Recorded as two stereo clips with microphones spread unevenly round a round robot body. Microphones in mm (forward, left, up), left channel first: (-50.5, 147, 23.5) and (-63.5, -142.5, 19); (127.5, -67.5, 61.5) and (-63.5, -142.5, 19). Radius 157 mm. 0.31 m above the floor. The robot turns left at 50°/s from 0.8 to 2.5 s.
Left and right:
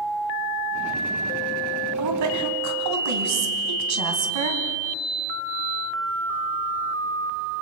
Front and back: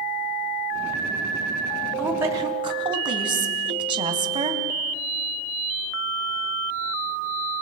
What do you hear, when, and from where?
2.0 s a woman speaking: 75° right, 3 m; by 4.6 s 100° right, 3 m